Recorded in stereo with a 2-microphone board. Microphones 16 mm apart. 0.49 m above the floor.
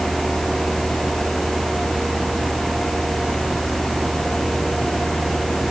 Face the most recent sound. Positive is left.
No sound to turn to.